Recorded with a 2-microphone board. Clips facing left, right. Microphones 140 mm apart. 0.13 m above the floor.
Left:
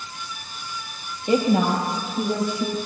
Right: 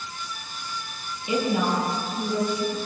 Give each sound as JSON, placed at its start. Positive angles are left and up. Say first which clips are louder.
{"t": 1.3, "sound": "a woman speaking", "louder": "left 5 dB", "side_deg": 45, "distance_m": 3.5}